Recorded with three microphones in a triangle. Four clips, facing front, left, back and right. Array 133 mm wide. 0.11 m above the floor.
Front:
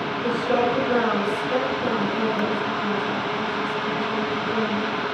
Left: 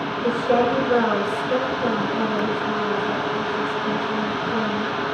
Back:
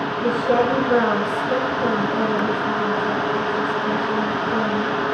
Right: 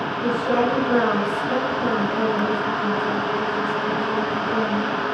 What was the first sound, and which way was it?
A woman speaking, 160° right.